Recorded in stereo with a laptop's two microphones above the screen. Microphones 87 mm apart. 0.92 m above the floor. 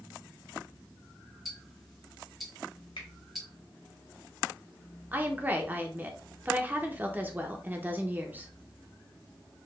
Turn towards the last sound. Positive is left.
turn(degrees=-20)  # may be behind; listen again after turning